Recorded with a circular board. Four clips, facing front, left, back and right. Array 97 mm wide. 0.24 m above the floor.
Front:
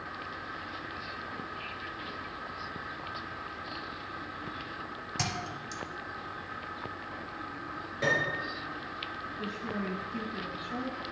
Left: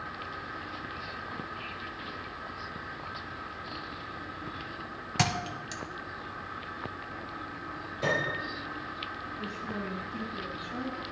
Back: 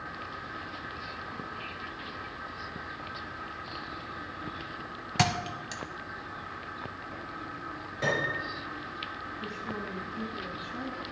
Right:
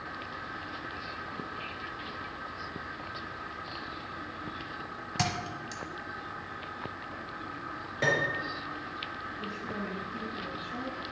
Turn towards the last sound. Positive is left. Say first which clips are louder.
# left 1 dB, front 3 dB
turn(degrees=10)